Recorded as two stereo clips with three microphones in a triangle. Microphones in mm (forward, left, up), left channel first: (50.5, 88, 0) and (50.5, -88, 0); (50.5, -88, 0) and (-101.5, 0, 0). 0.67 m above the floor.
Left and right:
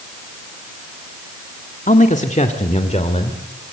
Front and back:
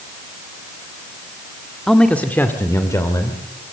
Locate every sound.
1.9 s a man speaking: 60° left, 1.7 m; by 3.4 s 40° left, 3 m